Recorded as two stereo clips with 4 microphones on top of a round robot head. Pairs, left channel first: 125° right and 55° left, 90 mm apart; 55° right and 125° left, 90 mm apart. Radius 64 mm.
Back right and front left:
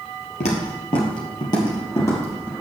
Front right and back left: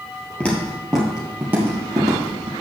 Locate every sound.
0.4 s footsteps: 130° right, 2 m; by 2.5 s 170° left, 2.5 m